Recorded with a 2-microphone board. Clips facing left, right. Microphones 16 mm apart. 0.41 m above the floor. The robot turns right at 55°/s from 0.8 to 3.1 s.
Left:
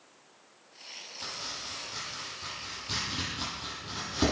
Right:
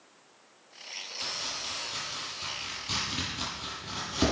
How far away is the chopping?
About 9 m.